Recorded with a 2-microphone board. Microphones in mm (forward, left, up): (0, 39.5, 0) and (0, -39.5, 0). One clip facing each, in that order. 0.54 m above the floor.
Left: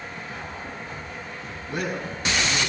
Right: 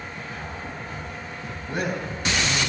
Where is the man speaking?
45° right (ahead or behind), 3 m.